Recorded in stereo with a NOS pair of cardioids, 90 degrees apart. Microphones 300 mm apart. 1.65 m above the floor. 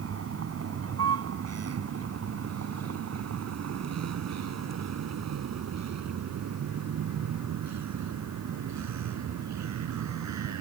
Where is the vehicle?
50° right; by 10.6 s 65° right.